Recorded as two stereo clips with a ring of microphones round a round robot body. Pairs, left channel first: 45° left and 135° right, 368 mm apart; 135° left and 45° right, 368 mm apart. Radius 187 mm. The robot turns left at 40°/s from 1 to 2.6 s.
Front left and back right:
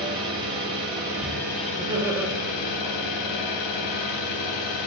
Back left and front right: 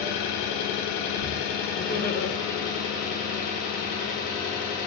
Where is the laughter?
160° left, 0.6 m; by 2.3 s 140° left, 0.6 m.